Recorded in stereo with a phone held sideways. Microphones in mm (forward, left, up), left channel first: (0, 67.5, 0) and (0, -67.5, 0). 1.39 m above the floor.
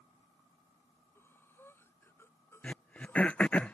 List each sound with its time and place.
1.1 s breathing: 15° left (ahead or behind)
2.6 s throat clearing: 10° left (ahead or behind)